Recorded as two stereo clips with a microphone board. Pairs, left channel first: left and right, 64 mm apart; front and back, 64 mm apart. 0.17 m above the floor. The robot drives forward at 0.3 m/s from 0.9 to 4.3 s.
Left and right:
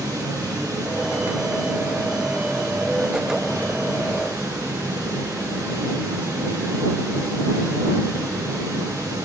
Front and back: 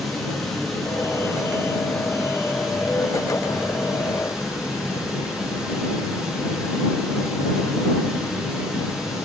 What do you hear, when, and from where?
0.0 s running water: 90° right, 5 m; by 9.2 s 100° right, 5 m